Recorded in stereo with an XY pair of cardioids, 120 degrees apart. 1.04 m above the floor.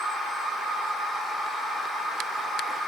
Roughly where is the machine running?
Ahead left.